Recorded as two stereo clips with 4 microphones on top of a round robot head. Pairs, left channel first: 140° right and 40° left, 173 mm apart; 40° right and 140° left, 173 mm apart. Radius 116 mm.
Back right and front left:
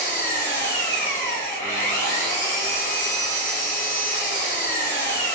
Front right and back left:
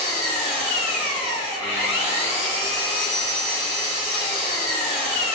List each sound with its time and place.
0.0 s an engine running: 145° right, 0.9 m